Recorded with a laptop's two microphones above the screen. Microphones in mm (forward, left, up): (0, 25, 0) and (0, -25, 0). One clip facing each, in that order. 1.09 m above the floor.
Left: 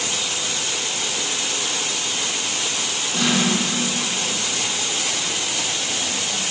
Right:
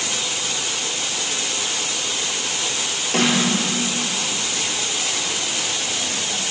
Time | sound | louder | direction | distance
3.1 | a snare drum | right 2 dB | 65° right (ahead or behind) | 8.5 m